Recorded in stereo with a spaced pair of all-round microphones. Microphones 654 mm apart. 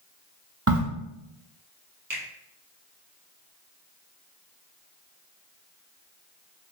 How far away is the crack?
About 0.6 m.